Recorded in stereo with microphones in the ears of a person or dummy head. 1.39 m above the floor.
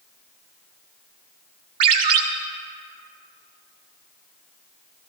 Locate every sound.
1.8 s a ringtone: 25° right (ahead or behind), 0.7 m